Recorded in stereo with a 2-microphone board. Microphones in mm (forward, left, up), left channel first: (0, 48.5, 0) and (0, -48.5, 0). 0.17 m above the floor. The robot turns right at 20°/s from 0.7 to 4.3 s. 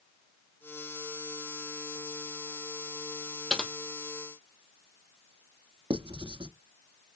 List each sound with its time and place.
3.5 s typing on a keyboard: 5° left (ahead or behind), 0.9 m; by 3.7 s 10° left (ahead or behind), 0.9 m
5.9 s writing: 50° right (ahead or behind), 0.5 m